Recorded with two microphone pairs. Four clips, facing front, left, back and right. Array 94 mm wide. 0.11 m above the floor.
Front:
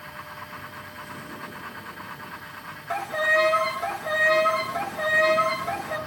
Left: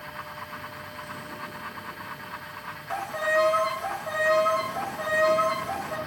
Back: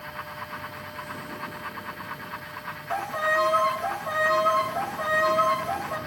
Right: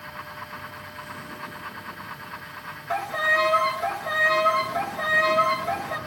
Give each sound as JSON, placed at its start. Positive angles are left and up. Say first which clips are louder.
{"t": 2.9, "sound": "a violin", "louder": "right 1 dB, front 2 dB", "azimuth_deg": -40, "distance_m": 1.3}